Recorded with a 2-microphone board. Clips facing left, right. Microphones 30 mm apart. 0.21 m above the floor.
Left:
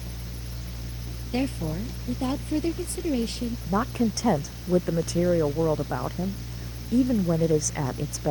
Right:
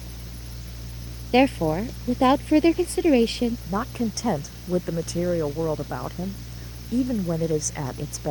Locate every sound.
1.3 s a woman speaking: 60° right (ahead or behind)
3.7 s a woman speaking: 5° left (ahead or behind)